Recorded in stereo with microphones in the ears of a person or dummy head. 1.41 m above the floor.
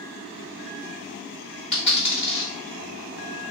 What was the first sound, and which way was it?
A dropped coin, 35° left (ahead or behind).